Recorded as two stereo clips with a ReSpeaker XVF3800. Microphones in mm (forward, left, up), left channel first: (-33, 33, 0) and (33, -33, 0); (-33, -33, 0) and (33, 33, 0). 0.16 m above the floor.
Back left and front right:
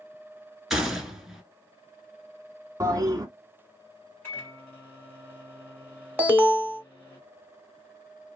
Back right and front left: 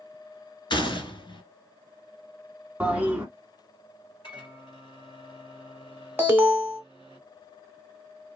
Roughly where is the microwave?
Behind.